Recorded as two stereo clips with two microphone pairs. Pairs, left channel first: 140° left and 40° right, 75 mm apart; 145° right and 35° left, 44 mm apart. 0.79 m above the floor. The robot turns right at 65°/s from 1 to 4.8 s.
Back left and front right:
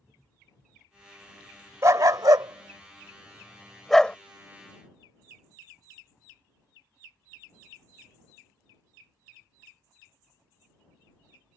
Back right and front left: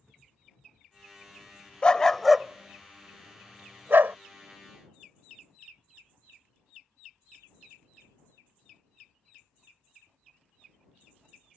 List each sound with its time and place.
1.8 s a dog barking: 85° right; by 4.2 s 70° left